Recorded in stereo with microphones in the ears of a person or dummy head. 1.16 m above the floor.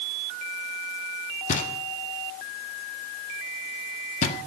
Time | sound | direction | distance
1.5 | knocking | 45° left (ahead or behind) | 1.5 m